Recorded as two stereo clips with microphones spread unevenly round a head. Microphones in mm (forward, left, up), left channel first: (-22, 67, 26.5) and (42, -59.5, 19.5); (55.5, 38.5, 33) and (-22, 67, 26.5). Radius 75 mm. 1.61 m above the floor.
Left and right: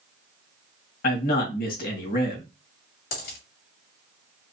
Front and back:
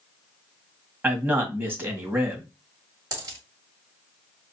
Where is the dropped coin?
125° left, 2.5 m.